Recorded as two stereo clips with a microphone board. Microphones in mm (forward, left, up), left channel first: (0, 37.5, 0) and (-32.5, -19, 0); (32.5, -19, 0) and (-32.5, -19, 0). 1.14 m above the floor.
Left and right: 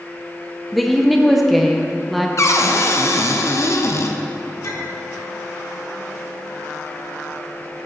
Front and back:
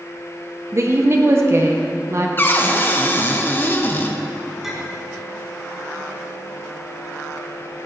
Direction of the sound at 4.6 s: 95° left.